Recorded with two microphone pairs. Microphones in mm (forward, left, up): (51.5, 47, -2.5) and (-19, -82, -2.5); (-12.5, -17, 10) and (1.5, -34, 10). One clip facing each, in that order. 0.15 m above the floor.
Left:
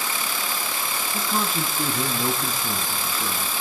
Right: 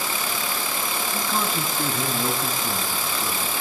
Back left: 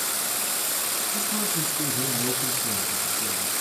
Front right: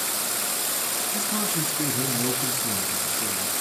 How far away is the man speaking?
About 1.3 m.